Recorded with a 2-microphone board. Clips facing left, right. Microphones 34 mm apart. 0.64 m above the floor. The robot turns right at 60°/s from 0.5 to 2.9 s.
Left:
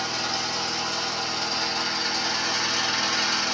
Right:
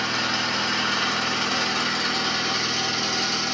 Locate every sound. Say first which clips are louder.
0.0 s an engine running: right 4 dB; 140° right, 2 m; by 3.5 s 5° left, 2 m